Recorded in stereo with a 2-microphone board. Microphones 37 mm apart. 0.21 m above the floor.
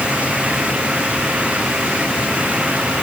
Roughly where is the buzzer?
I don't hear a buzzer.